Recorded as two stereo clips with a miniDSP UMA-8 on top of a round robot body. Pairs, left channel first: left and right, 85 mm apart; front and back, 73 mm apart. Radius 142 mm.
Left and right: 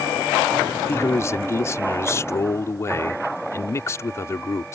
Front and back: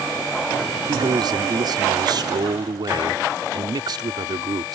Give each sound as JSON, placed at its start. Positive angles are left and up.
{"t": 0.9, "sound": "a man speaking", "azimuth_deg": 150}